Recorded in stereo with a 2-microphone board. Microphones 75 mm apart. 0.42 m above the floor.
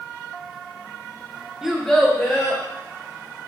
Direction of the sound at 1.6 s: 5° right (ahead or behind).